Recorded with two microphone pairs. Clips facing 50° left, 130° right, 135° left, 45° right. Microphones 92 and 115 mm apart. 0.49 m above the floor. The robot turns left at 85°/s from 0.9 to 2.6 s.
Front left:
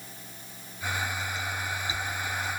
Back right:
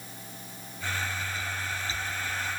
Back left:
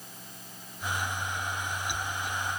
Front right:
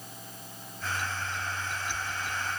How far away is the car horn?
No car horn in this recording.